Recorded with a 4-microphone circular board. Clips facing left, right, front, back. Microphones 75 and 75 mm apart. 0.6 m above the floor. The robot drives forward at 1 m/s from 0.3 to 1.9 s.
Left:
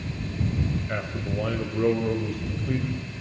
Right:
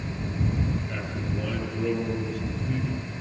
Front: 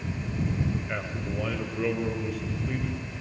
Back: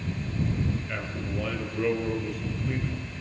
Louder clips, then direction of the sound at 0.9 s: Left 2 dB, front 1 dB; 70° left.